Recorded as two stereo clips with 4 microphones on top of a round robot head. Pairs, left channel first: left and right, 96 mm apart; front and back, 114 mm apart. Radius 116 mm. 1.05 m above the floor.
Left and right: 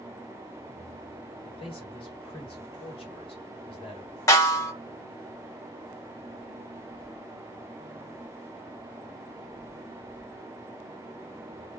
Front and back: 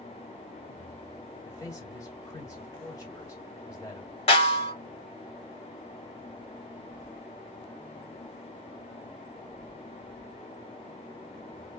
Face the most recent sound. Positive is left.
turn(degrees=35)